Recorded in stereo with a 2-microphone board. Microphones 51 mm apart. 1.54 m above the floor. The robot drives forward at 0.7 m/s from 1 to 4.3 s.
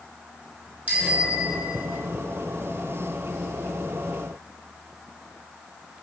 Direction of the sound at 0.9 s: 35° right (ahead or behind).